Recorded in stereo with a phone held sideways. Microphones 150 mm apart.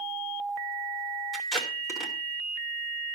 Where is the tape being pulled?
Centre (ahead or behind), 3 m.